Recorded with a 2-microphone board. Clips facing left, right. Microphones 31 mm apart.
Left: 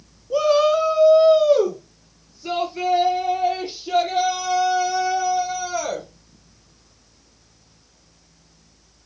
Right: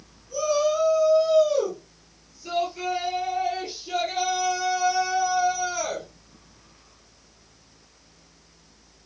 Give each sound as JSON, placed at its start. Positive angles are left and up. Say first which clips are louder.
{"t": 0.3, "sound": "a shout", "louder": "left 6 dB", "side_deg": 45, "distance_m": 1.4}